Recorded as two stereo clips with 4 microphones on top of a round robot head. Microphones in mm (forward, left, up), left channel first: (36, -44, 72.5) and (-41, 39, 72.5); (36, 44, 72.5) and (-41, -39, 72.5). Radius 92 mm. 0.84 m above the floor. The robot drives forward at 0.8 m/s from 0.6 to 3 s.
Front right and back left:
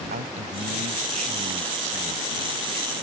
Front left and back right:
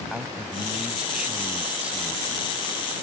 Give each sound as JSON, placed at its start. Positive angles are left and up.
{"t": 0.1, "sound": "a man speaking", "azimuth_deg": 140}